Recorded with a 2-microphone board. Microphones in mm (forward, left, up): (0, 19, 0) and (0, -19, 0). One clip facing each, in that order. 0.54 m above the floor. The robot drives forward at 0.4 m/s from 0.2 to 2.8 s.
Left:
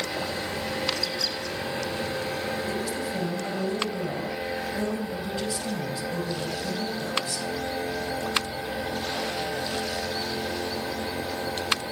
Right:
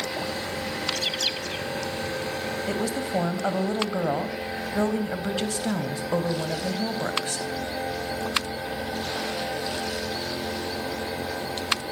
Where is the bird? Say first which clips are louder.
Right 1 dB; 70° right (ahead or behind), 2.5 m; by 1.6 s 65° right (ahead or behind), 2.5 m.